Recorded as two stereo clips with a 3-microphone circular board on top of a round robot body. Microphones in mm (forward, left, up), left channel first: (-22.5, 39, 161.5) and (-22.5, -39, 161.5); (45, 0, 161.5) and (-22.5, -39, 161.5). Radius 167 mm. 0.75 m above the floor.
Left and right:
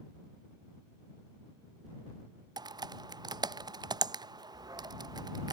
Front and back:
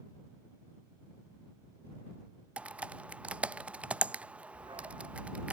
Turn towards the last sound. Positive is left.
turn(degrees=-130)